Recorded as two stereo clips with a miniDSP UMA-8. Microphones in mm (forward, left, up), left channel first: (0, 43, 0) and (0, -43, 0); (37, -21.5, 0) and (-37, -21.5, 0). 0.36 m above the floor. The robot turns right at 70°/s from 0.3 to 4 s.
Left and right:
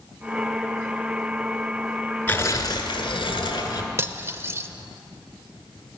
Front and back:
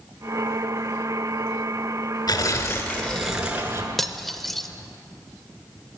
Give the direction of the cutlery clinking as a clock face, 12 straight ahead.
3 o'clock.